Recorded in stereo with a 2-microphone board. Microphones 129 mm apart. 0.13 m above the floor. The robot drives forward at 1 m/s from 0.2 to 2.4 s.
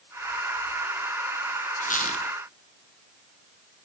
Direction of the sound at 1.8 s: 90° left.